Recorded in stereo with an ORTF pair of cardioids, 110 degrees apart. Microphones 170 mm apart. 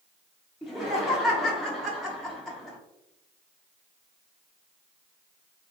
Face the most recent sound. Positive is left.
turn(degrees=0)